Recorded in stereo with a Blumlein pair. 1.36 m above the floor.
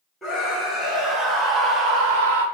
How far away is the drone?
No drone in this recording.